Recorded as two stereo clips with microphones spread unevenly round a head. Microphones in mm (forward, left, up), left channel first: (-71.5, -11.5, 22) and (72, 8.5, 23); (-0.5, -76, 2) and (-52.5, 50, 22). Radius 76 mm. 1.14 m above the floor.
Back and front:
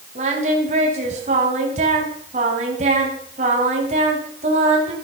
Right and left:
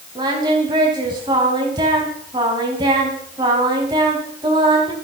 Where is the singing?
50° left, 3.5 m.